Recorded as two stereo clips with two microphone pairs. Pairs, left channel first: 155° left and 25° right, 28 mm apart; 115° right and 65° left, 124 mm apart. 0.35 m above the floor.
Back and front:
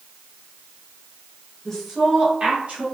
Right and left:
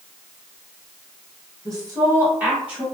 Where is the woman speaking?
90° left, 1.2 m; by 2.9 s 20° right, 1.5 m.